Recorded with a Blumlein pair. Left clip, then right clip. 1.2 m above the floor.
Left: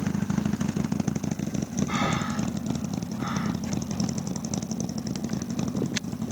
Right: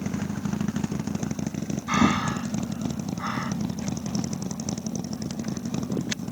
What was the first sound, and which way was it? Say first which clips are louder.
Breathing: right 6 dB; 25° right.